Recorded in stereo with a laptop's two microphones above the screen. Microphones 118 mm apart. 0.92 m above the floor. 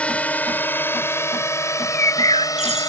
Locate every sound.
0.0 s a drone: 10° left (ahead or behind); by 2.9 s 30° left (ahead or behind)
1.7 s a bird: 75° right (ahead or behind)